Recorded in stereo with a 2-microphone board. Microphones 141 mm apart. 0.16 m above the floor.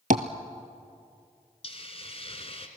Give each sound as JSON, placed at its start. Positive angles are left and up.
{"t": 0.1, "sound": "tapping", "side_deg": -70, "distance_m": 1.0}
{"t": 1.6, "sound": "a hiss", "side_deg": 45, "distance_m": 1.7}